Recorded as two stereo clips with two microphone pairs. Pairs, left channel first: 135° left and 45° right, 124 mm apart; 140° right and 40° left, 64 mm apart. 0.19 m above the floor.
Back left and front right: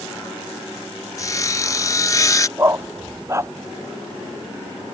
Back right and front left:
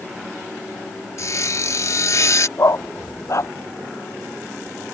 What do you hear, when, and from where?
1.2 s sawing: 170° right
2.6 s a dog barking: 110° right